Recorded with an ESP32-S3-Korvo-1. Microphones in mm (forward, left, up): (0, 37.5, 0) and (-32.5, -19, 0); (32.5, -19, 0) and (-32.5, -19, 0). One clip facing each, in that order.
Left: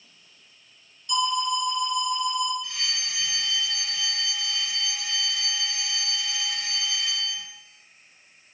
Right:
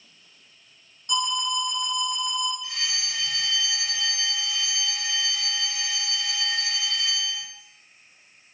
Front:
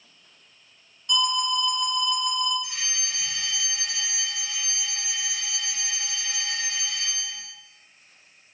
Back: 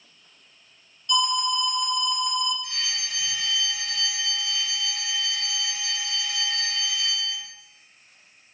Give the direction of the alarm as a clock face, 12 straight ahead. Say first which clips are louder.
Left 2 dB, back 1 dB; 3 o'clock.